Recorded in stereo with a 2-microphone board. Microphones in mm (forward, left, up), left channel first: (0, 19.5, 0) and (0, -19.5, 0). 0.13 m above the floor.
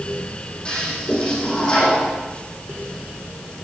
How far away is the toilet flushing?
About 5 m.